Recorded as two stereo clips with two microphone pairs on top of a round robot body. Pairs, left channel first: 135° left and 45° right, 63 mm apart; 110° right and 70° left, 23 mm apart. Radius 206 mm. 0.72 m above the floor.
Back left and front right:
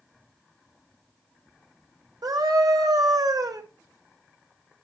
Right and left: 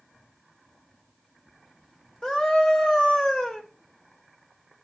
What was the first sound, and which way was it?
A scream, 55° right.